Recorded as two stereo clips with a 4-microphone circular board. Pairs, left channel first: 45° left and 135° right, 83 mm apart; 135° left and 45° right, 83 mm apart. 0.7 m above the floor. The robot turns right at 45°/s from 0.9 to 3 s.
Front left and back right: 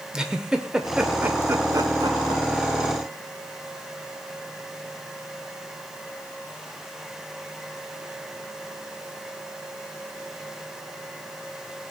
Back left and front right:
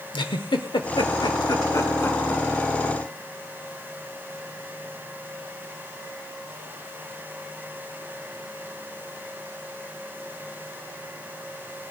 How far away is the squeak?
I don't hear a squeak.